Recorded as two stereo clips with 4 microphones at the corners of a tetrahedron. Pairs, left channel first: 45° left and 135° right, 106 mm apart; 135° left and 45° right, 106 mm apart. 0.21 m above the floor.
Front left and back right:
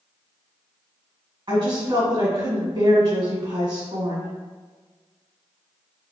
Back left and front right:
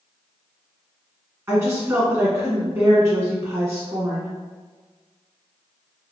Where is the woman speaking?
105° right, 1.4 m.